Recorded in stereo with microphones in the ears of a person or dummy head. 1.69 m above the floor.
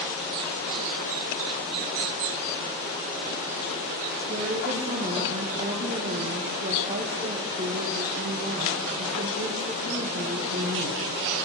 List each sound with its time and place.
4.3 s a woman speaking: 45° right (ahead or behind), 2 m